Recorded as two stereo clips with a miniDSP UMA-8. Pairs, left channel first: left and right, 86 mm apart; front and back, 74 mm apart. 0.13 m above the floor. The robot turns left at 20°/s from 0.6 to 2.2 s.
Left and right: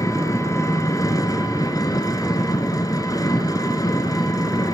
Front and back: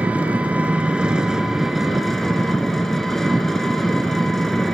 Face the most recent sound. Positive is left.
turn(degrees=85)